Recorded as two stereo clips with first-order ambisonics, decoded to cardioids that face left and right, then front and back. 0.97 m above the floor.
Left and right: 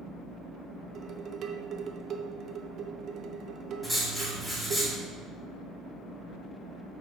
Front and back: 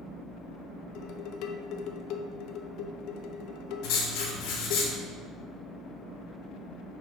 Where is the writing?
5° left, 2.0 m.